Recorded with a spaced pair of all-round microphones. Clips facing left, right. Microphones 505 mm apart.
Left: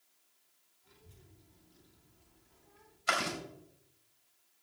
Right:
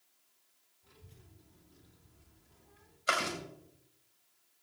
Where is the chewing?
15° left (ahead or behind), 4 m.